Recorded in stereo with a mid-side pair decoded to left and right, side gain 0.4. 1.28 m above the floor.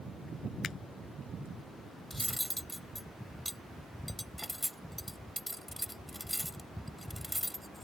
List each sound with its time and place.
0.6 s a finger snap: 50° left
2.1 s cutlery clinking: straight ahead